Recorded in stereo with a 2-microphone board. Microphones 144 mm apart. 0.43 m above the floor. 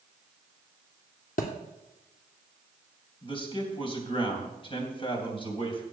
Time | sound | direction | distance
1.4 | a thud | 75° left (ahead or behind) | 2 m
3.2 | a man speaking | 40° left (ahead or behind) | 3.5 m